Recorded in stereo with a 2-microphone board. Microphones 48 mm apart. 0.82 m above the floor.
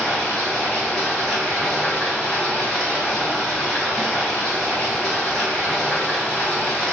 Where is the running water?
5° left (ahead or behind), 1.4 m.